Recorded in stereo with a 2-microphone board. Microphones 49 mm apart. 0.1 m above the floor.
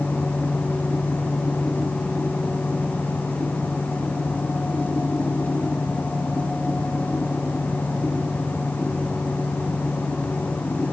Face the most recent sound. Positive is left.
No sound to turn to.